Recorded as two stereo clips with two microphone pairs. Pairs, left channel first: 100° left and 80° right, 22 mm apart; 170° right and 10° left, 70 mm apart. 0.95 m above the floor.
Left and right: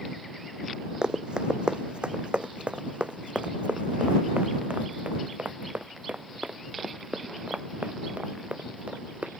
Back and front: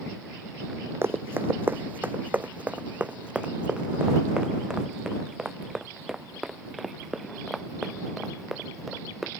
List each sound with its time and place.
1.0 s running footsteps: 40° right; by 9.3 s 75° right